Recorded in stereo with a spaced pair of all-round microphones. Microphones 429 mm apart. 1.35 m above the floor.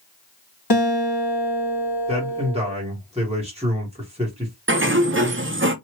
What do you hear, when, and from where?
0.7 s a guitar: 55° left (ahead or behind), 1.6 m
2.1 s a man speaking: 15° right (ahead or behind), 1.6 m
4.7 s a sliding door: 30° right (ahead or behind), 0.5 m